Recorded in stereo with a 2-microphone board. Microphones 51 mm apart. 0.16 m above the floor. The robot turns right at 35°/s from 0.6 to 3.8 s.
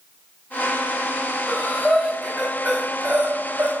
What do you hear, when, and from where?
1.5 s breathing: 25° left (ahead or behind), 4.5 m; by 3.7 s 55° right (ahead or behind), 4.5 m